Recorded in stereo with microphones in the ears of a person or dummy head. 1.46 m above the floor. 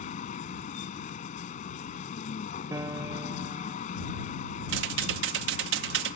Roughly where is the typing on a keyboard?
Right.